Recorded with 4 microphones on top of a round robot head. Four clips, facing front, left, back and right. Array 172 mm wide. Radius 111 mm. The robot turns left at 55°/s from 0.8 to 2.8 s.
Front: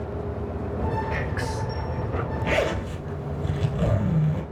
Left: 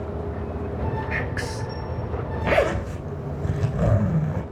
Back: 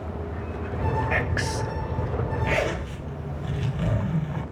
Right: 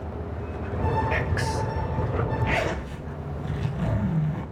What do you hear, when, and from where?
1.1 s whispering: 155° right, 3.5 m; by 1.8 s 165° left, 3.5 m
2.4 s a zipper: 85° left, 3.5 m; by 4.4 s 65° left, 3.5 m